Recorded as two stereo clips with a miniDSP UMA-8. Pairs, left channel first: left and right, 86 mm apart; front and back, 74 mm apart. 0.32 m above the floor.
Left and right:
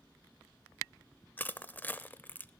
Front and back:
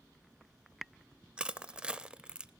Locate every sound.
1.4 s crushing: 125° left, 0.5 m